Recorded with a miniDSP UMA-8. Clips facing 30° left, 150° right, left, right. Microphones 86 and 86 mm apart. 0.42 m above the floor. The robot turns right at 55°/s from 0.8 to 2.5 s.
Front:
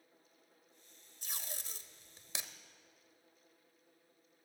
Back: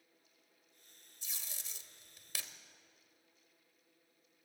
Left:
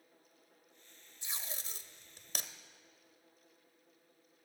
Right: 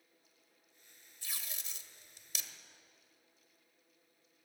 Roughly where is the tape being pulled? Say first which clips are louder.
Front 5 dB, left 3 dB; ahead left.